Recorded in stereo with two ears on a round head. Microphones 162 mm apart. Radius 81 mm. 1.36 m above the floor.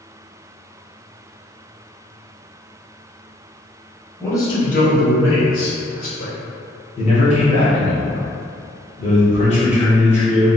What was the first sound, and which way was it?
A man speaking, 10° left (ahead or behind).